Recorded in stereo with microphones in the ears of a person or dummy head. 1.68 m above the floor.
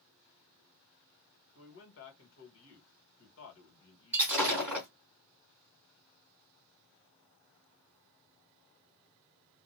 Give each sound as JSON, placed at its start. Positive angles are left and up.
{"t": 1.6, "sound": "a man speaking", "side_deg": 70, "distance_m": 2.0}
{"t": 4.1, "sound": "breaking glass", "side_deg": -5, "distance_m": 2.5}